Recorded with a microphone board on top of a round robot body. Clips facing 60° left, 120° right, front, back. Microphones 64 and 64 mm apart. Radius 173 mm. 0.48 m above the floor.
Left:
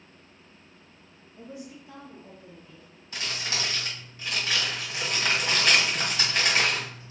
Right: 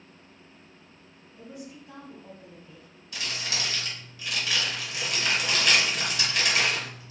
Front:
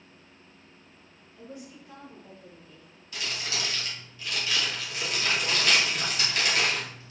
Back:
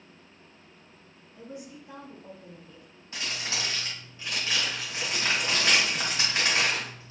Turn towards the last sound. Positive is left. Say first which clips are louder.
# left 1 dB, even
turn(degrees=115)